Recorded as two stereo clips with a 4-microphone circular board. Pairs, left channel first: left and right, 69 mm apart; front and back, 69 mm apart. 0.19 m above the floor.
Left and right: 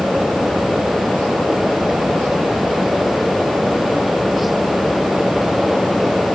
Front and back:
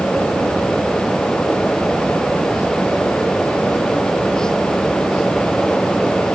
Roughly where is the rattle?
No rattle in this recording.